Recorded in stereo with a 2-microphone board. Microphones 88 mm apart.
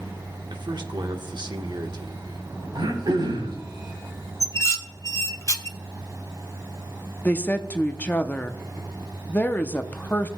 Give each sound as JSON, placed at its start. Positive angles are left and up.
{"t": 0.5, "sound": "a man speaking", "side_deg": -60, "distance_m": 1.1}
{"t": 2.8, "sound": "throat clearing", "side_deg": -60, "distance_m": 4.0}
{"t": 4.4, "sound": "dishes clattering", "side_deg": 35, "distance_m": 0.7}
{"t": 7.2, "sound": "a woman speaking", "side_deg": 20, "distance_m": 0.6}